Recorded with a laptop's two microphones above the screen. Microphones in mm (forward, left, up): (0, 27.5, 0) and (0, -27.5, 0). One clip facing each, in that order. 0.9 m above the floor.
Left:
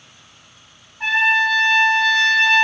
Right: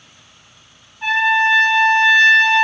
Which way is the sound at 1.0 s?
60° left (ahead or behind).